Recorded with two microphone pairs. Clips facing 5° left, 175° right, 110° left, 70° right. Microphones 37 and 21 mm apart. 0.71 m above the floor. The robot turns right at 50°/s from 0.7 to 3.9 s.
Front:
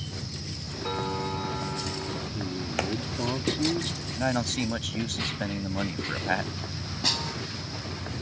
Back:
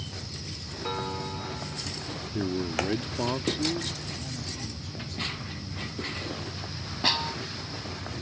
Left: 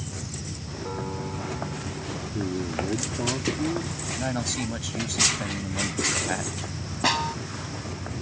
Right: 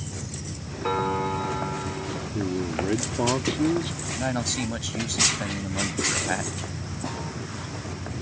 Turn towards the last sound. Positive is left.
turn(degrees=115)